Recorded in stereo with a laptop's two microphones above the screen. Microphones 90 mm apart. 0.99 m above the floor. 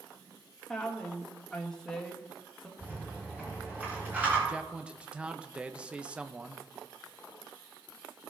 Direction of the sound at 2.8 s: 20° right (ahead or behind).